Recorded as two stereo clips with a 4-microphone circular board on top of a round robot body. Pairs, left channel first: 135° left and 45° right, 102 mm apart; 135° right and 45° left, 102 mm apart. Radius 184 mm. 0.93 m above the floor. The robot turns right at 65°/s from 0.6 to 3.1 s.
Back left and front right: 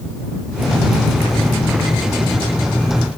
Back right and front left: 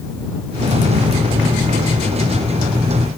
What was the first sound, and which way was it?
Only background noise.